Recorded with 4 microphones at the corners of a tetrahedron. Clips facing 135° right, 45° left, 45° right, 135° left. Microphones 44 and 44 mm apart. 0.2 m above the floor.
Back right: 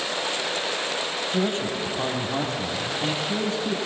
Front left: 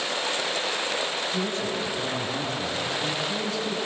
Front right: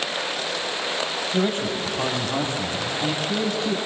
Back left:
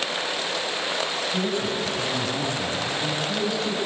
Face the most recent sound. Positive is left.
turn(degrees=-90)